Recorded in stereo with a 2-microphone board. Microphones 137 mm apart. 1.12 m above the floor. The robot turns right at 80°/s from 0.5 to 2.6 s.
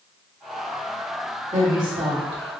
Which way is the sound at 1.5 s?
70° right (ahead or behind).